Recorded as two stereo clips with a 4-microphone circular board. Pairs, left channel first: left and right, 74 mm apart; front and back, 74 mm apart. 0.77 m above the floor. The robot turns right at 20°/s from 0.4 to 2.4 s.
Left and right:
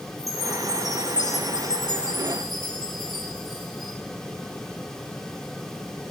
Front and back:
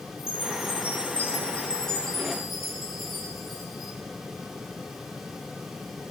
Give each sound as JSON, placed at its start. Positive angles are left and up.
{"t": 0.2, "sound": "a chime", "azimuth_deg": 50, "distance_m": 9.0}